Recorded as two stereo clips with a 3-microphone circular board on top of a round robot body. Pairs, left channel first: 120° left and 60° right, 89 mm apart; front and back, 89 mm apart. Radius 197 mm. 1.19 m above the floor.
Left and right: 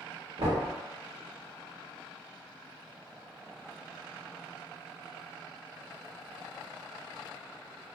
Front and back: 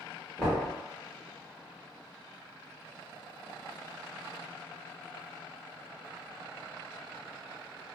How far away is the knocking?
About 1.4 m.